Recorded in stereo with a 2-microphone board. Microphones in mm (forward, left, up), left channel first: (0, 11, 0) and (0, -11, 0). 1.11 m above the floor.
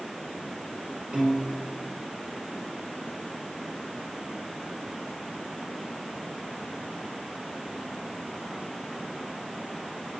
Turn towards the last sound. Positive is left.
turn(degrees=-70)  # may be behind; listen again after turning